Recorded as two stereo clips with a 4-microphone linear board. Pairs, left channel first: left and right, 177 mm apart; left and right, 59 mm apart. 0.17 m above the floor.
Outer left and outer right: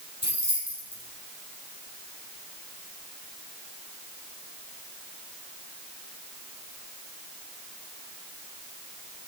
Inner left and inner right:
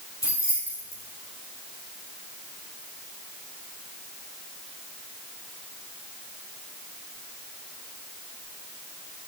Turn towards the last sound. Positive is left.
turn(degrees=80)